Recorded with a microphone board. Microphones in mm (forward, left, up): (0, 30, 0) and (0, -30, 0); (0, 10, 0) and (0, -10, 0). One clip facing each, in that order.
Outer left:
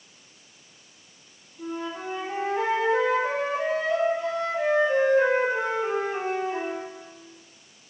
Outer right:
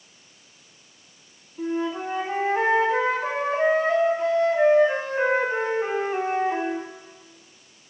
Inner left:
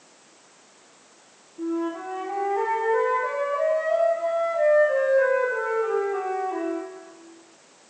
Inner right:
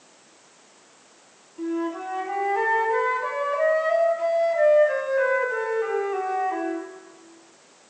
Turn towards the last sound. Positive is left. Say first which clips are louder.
# outer right 6 dB, even
turn(degrees=-45)  # may be behind; listen again after turning